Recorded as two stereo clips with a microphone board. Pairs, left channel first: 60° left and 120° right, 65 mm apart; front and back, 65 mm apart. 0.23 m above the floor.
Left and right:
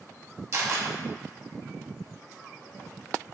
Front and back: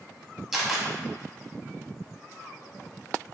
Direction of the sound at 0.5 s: 95° right.